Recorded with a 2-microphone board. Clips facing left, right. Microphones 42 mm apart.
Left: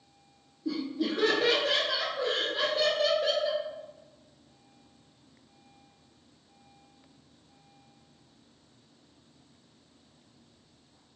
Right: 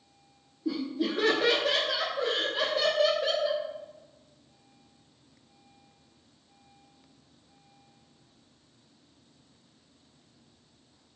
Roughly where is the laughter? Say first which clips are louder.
Right 1 dB; centre.